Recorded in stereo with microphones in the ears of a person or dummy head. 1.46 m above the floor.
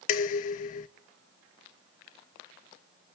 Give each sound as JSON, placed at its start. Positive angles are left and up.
{"t": 0.1, "sound": "dishes clattering", "side_deg": 40, "distance_m": 0.8}